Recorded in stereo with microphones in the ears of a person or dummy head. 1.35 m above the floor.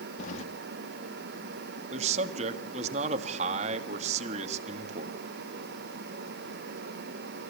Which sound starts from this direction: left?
Keys jangling, at 0.2 s.